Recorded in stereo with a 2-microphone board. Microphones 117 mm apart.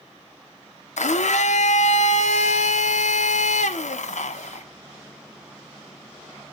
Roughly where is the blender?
Left.